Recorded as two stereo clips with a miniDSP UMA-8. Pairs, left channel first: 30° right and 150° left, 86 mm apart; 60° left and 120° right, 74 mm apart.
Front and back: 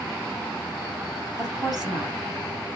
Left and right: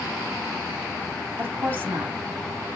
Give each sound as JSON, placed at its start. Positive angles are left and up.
{"t": 1.4, "sound": "a woman speaking", "azimuth_deg": -175, "distance_m": 2.5}